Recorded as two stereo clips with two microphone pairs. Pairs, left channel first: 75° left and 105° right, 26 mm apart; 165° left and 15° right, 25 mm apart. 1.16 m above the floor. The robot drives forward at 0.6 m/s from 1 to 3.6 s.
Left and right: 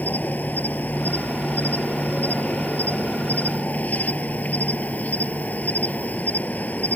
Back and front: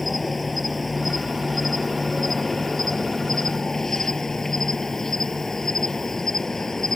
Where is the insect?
75° left; by 7.0 s 90° left.